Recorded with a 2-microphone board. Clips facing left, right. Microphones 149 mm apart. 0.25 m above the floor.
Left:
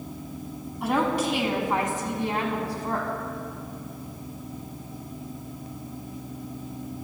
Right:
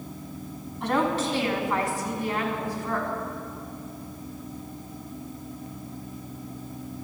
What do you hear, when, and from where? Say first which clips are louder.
0.8 s a woman speaking: left 1 dB; 5° left (ahead or behind), 2 m; by 3.1 s 40° left (ahead or behind), 2.5 m